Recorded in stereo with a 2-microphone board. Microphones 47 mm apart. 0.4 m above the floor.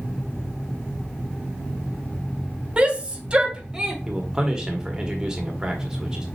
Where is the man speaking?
15° right (ahead or behind), 1.3 m.